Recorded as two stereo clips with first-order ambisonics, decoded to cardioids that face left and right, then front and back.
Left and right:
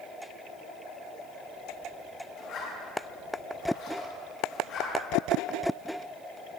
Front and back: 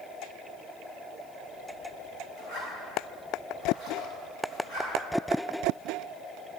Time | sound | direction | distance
2.4 | a zipper | 45° left | 5.5 m